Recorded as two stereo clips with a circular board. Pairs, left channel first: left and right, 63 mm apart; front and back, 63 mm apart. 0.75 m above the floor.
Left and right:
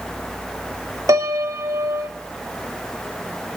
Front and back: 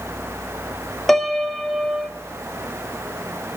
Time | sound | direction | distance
1.1 | a piano | 90° right | 0.7 m